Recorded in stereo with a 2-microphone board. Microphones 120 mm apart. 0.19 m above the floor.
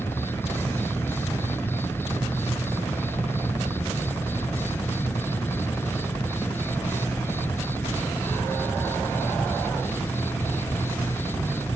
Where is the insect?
20° left (ahead or behind).